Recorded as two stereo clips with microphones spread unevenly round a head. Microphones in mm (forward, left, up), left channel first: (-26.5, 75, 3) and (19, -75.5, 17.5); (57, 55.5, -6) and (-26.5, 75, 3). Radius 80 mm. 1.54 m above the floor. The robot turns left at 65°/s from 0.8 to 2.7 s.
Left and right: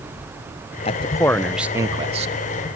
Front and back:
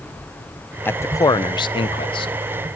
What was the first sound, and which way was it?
A man speaking, 55° left.